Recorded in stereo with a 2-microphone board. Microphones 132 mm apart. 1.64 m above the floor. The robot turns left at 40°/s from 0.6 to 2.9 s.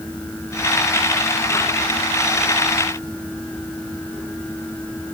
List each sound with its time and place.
Only background noise.